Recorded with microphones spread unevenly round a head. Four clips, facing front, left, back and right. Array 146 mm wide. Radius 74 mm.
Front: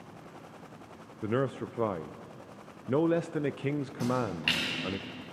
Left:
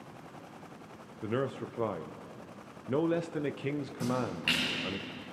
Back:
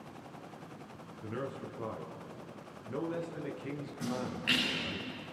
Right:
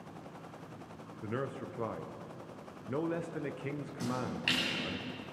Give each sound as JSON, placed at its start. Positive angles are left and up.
{"t": 1.2, "sound": "a man speaking", "azimuth_deg": 20, "distance_m": 0.6}
{"t": 4.0, "sound": "a splash", "azimuth_deg": -5, "distance_m": 9.0}